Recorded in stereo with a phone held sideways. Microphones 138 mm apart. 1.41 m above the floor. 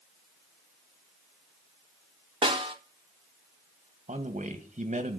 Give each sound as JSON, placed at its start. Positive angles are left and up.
{"t": 2.4, "sound": "a snare drum", "side_deg": -35, "distance_m": 1.8}
{"t": 4.1, "sound": "a man speaking", "side_deg": -60, "distance_m": 2.0}